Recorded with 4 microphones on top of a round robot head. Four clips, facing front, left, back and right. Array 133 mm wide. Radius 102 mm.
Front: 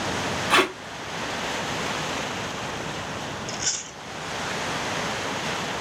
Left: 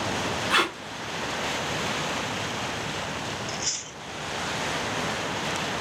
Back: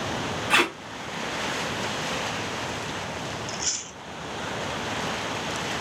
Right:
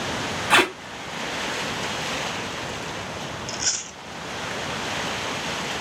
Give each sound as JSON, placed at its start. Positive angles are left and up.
{"t": 0.5, "sound": "tape being pulled", "azimuth_deg": -60, "distance_m": 0.7}
{"t": 3.5, "sound": "chewing", "azimuth_deg": -50, "distance_m": 0.7}